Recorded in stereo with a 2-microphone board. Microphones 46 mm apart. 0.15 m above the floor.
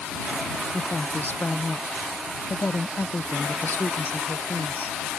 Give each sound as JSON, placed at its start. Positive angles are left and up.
{"t": 0.7, "sound": "a woman speaking", "side_deg": 50}